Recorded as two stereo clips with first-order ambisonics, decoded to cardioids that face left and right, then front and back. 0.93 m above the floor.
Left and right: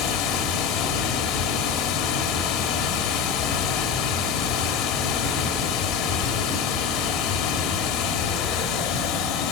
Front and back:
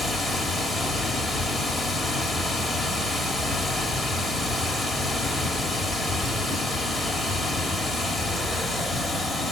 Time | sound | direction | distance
0.0 | running water | 95° left | 1.4 m